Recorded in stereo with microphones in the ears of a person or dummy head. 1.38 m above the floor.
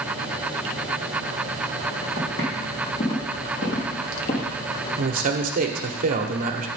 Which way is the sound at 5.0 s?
45° right (ahead or behind).